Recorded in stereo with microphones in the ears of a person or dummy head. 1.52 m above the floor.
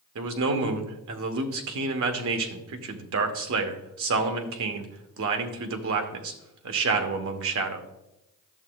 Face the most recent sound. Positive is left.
turn(degrees=-70)  # may be behind; listen again after turning